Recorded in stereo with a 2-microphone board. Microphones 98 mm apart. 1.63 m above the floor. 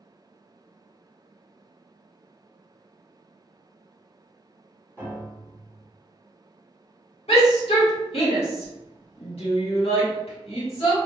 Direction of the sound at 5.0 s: 20° left (ahead or behind).